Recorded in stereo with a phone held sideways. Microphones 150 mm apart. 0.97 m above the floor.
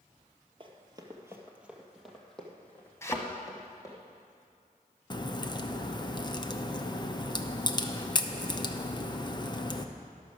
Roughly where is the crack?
Left.